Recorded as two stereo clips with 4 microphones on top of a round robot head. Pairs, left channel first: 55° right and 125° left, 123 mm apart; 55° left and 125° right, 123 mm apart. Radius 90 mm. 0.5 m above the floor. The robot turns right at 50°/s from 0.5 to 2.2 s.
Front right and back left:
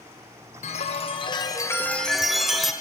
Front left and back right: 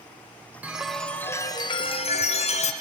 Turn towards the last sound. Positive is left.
turn(degrees=35)